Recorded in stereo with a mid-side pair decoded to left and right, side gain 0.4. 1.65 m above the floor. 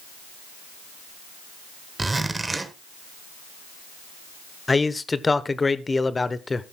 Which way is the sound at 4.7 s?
25° left.